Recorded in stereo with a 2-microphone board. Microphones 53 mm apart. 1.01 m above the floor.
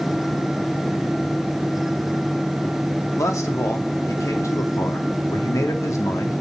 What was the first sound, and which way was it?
A man speaking, 80° left.